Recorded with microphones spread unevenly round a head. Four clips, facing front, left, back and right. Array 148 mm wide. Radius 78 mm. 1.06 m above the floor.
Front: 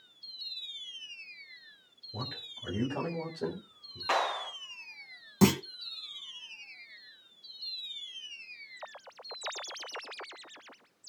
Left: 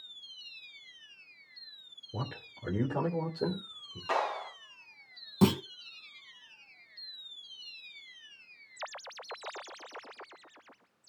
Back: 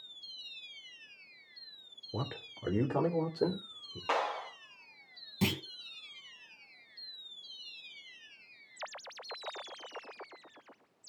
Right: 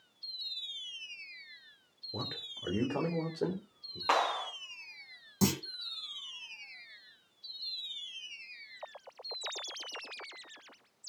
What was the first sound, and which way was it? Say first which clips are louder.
A man speaking: left 2 dB, back 3 dB; 165° right.